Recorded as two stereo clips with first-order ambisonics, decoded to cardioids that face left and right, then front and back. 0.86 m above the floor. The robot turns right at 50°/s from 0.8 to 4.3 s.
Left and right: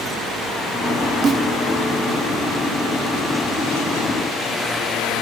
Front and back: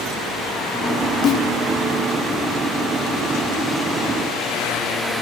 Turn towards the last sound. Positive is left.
turn(degrees=120)